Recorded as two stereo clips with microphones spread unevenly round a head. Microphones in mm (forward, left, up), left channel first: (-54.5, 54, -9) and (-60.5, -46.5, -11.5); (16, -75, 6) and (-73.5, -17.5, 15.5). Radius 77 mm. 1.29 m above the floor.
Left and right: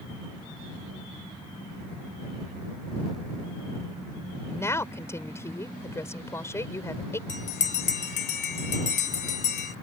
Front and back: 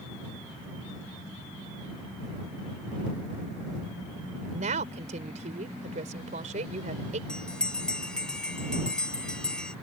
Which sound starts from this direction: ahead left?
A bell, at 7.3 s.